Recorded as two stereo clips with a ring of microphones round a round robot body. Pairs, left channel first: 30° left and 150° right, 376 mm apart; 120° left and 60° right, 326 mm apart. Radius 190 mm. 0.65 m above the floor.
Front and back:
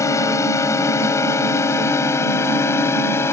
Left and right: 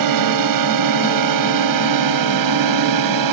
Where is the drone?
50° right; by 3.3 s 55° right.